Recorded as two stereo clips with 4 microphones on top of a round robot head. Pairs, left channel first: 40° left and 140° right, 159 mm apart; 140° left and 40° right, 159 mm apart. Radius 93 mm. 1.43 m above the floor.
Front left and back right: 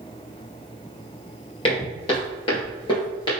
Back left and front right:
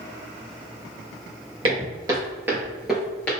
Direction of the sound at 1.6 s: Straight ahead.